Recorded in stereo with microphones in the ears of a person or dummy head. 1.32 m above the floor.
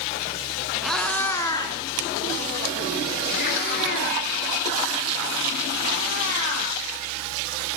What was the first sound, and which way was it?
A cat meowing, centre (ahead or behind).